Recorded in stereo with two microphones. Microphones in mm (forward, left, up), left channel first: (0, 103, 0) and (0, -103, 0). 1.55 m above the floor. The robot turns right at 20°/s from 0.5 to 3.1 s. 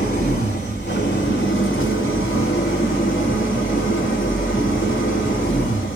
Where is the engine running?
55° left, 3 m; by 6.0 s 105° left, 3 m.